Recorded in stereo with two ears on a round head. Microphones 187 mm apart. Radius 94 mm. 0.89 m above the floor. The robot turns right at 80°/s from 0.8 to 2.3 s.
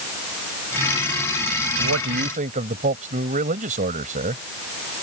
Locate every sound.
1.8 s a man speaking: 80° right; by 4.4 s 35° right